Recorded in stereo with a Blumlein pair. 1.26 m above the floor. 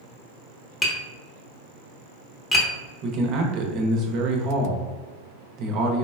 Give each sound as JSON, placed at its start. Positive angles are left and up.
{"t": 0.8, "sound": "tapping", "azimuth_deg": 10, "distance_m": 0.9}
{"t": 3.0, "sound": "a man speaking", "azimuth_deg": -35, "distance_m": 0.7}